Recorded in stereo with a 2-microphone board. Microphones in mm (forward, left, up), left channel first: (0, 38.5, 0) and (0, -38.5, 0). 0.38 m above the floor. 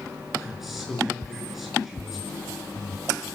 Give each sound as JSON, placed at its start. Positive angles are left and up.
{"t": 0.4, "sound": "a man speaking", "side_deg": -5, "distance_m": 6.5}